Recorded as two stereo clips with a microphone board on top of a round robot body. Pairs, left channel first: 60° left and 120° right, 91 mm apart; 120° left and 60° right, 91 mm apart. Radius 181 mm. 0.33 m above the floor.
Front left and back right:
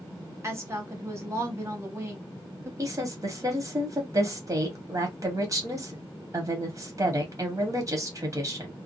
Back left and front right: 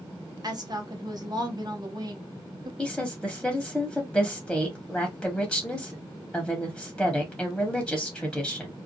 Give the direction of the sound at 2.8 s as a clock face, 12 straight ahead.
5 o'clock.